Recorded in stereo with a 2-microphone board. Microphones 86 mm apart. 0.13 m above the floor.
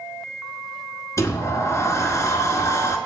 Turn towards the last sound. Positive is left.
turn(degrees=35)  # may be behind; listen again after turning